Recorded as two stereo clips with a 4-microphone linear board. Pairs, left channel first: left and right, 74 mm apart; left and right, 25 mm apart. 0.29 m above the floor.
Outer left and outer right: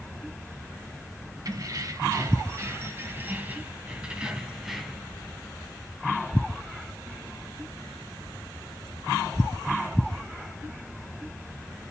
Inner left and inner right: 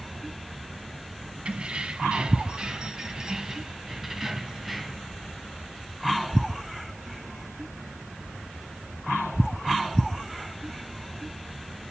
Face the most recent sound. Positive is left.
turn(degrees=0)  # may be behind; listen again after turning